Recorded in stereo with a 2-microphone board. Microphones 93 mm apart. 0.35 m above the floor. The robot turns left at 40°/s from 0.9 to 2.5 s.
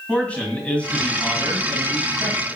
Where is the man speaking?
15° left, 2 m; by 2.6 s 50° right, 2 m.